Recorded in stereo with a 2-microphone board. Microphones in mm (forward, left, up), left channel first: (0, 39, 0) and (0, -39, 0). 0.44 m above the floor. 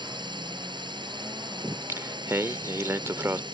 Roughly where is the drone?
Right.